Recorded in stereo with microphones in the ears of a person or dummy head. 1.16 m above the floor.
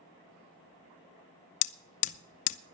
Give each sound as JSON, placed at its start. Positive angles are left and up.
{"t": 1.6, "sound": "hammering", "side_deg": 40, "distance_m": 0.6}